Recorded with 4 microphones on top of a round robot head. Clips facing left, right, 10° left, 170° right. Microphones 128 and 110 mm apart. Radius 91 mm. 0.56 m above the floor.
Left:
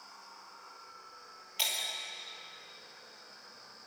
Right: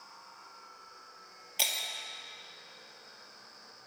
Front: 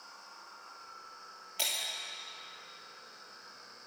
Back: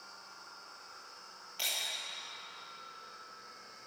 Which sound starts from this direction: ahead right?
Breaking glass, at 1.6 s.